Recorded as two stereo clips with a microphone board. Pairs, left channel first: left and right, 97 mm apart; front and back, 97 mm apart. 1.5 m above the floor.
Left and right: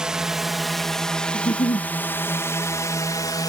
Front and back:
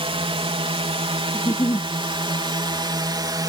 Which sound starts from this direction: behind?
A drone, at 0.0 s.